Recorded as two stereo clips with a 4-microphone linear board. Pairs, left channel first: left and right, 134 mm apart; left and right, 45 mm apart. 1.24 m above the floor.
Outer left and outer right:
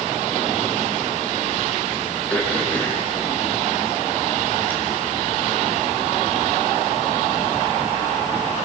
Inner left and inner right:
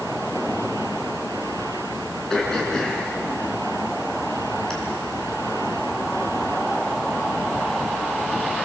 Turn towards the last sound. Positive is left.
turn(degrees=10)  # may be behind; listen again after turning